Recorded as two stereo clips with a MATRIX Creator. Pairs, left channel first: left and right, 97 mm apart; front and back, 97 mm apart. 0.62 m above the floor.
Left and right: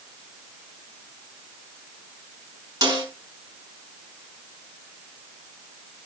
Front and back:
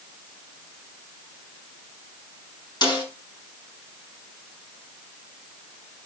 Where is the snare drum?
45° right, 6 m.